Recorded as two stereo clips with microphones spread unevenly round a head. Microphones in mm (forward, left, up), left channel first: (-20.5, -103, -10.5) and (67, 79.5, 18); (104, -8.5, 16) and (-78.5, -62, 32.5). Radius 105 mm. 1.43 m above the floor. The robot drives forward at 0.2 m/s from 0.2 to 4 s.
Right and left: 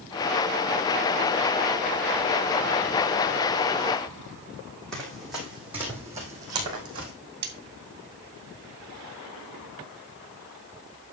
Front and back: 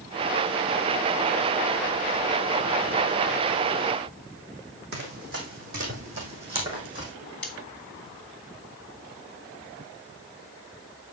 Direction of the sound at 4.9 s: 155° left.